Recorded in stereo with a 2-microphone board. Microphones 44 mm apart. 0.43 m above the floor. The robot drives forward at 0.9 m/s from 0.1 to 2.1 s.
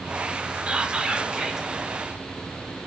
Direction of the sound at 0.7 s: 25° right (ahead or behind).